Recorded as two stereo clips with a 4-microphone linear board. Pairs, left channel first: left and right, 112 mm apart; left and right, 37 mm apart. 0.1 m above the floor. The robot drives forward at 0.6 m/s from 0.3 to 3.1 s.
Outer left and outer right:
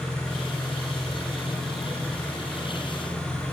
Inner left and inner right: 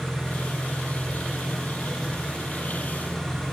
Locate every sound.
0.0 s an engine running: 5° left (ahead or behind), 7 m; by 3.5 s 10° left (ahead or behind), 5.5 m